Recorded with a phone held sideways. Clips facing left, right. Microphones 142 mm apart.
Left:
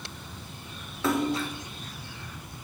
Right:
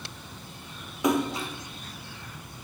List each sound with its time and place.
1.0 s a splash: 15° right (ahead or behind), 0.5 m